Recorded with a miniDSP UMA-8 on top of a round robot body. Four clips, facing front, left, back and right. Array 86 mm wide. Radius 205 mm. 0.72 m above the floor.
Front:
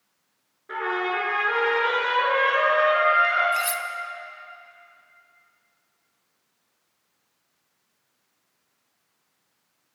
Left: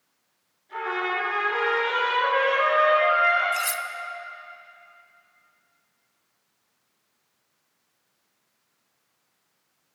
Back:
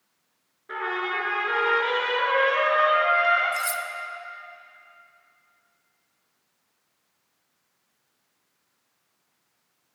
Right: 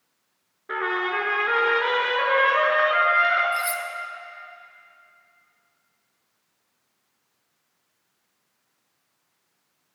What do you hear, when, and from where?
0.7 s a trumpet: 90° right, 5.5 m
3.5 s cutlery clinking: 45° left, 1.0 m